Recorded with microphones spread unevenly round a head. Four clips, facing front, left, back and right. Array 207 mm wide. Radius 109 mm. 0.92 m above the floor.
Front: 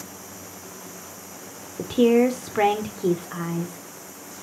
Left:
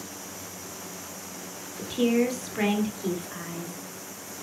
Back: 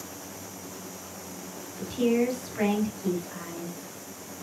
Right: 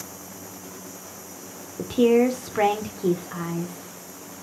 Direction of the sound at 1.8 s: 25° right.